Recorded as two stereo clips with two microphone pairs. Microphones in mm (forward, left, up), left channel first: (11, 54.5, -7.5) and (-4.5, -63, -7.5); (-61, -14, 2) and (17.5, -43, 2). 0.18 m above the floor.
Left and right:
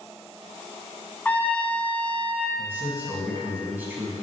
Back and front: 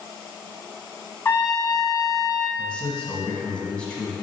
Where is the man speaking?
145° right, 1.2 m.